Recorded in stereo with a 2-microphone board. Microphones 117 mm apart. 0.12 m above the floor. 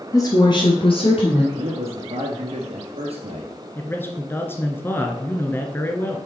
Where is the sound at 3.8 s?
20° left (ahead or behind), 1.3 m.